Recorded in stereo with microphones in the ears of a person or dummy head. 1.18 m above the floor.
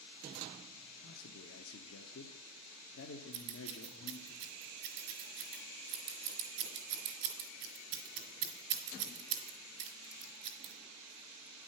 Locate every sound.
1.0 s a man speaking: 65° left (ahead or behind), 0.7 m
3.3 s scissors: 80° right, 2.5 m